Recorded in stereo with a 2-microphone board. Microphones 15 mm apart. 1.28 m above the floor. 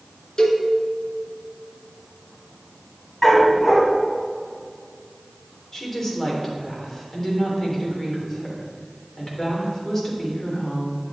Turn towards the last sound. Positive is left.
turn(degrees=25)  # may be behind; listen again after turning